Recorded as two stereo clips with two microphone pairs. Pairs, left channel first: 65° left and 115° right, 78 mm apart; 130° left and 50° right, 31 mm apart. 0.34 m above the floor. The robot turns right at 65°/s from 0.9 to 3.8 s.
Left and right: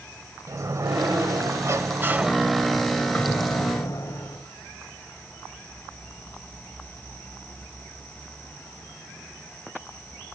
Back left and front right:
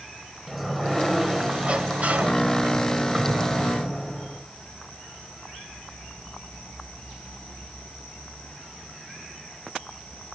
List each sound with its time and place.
0.5 s a sliding door: 140° right, 1.4 m; by 4.4 s 50° left, 1.4 m